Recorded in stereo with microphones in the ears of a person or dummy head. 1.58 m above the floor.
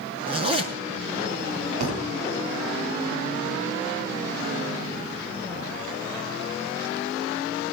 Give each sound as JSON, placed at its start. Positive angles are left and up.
{"t": 0.3, "sound": "a zipper", "side_deg": -30, "distance_m": 5.5}
{"t": 1.8, "sound": "a thud", "side_deg": -55, "distance_m": 3.5}